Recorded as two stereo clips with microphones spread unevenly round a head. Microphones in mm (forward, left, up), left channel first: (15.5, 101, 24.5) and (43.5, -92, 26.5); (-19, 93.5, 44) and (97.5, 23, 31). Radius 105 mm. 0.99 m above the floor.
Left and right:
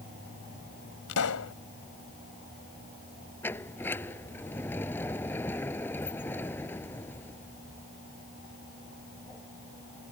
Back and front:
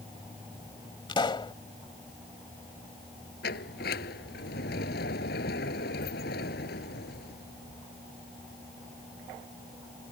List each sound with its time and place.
1.1 s a pop: 95° left
3.4 s a sliding door: straight behind